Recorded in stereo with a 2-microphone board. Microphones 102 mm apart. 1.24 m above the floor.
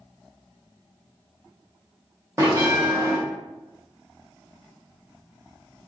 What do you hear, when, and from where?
2.4 s a bell: 30° right (ahead or behind), 0.8 m